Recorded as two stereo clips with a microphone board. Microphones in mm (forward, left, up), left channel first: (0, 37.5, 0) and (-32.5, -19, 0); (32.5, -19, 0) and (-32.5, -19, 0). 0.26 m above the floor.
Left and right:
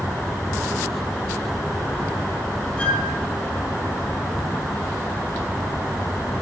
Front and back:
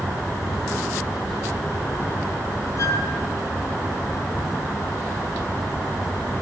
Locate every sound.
2.8 s a flute: 5° right, 2.5 m